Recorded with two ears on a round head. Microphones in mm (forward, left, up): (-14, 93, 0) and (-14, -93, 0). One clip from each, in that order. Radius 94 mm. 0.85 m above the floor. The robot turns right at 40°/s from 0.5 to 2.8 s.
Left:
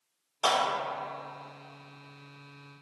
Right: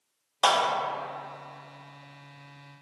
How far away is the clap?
About 1.7 m.